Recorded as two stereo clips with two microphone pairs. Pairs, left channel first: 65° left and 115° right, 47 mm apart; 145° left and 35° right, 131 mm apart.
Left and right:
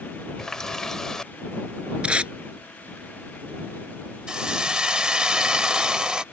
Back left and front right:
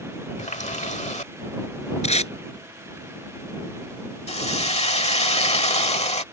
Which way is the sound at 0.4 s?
140° left.